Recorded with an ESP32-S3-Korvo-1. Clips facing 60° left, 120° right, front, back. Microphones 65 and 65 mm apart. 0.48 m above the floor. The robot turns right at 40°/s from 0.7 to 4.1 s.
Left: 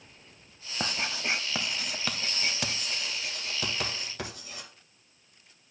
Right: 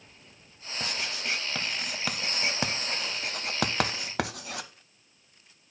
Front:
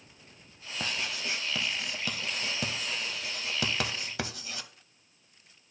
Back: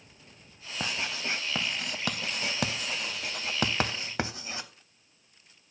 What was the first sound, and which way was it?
Writing, 105° left.